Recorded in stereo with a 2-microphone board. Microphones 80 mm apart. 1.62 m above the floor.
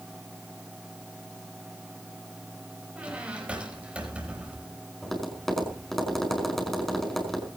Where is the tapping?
5° left (ahead or behind), 5 m.